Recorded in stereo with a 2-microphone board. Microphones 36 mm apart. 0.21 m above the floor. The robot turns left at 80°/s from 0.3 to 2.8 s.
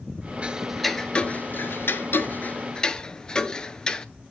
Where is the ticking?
35° right (ahead or behind), 0.7 m; by 4.0 s 25° left (ahead or behind), 0.7 m.